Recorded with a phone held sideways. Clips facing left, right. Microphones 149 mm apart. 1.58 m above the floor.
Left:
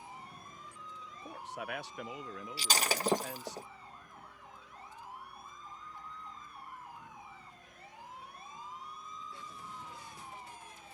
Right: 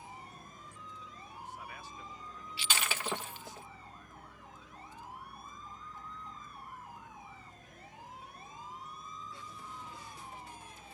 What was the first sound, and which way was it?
A vehicle, 45° right (ahead or behind).